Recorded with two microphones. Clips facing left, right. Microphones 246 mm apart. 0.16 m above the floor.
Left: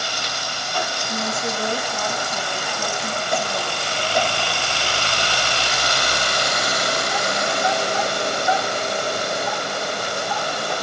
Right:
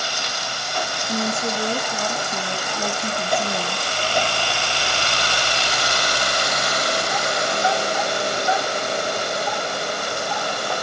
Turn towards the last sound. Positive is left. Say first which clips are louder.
# right 4 dB
turn(degrees=-45)  # may be behind; listen again after turning